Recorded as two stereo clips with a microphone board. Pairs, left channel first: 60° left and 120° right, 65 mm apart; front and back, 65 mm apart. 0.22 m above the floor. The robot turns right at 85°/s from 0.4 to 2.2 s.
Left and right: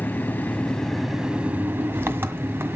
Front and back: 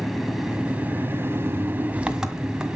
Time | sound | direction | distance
0.0 | an engine running | 95° left | 1.6 m